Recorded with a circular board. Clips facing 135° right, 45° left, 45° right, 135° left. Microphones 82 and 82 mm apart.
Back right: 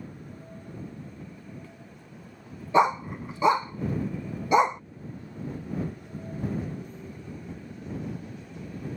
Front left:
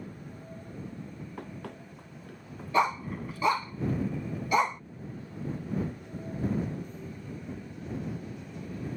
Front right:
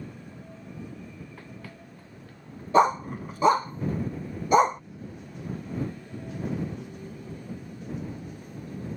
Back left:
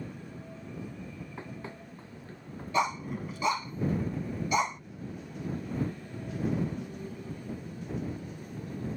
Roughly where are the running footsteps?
Ahead left.